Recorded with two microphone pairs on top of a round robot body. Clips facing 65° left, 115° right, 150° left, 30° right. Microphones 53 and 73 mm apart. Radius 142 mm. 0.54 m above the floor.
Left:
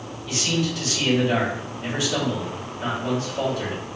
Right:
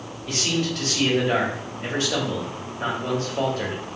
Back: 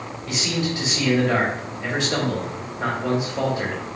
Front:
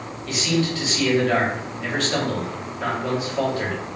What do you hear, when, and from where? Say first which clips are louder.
0.3 s a man speaking: even, front 3 dB; 145° right, 2.5 m